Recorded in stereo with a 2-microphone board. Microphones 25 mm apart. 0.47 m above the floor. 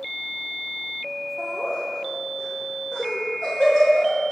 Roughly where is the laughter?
Left.